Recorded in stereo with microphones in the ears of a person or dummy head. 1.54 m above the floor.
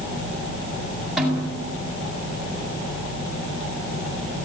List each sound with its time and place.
1.2 s a snare drum: centre (ahead or behind), 7.5 m